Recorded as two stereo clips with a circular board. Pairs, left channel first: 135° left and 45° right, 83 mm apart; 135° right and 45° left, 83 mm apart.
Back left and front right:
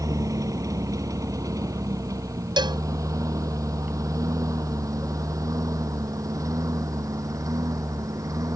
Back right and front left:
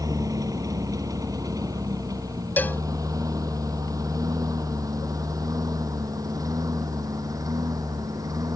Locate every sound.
0.0 s a lawn mower: straight ahead
2.6 s a cowbell: 65° right